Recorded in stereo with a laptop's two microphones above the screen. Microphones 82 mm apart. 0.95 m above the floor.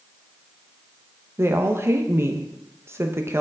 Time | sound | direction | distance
1.4 | a woman speaking | 30° right (ahead or behind) | 0.7 m